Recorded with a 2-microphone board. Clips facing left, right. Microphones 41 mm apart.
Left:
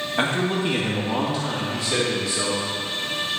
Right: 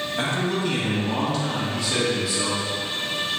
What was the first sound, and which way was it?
A man speaking, 30° left (ahead or behind).